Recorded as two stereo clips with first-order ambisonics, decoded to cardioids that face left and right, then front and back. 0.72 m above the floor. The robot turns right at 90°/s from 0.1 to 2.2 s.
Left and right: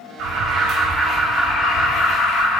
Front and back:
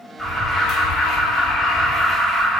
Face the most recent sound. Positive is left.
turn(degrees=95)